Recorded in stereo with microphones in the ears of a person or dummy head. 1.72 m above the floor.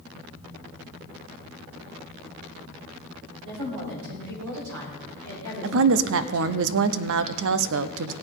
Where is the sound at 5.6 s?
65° right (ahead or behind), 0.7 m.